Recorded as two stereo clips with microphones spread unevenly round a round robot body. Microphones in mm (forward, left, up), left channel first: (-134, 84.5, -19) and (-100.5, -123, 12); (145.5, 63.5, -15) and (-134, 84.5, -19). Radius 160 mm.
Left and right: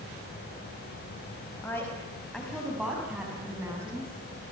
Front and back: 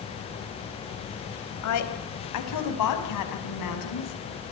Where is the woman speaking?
15° left, 4.5 m; by 4.2 s straight ahead, 7.5 m.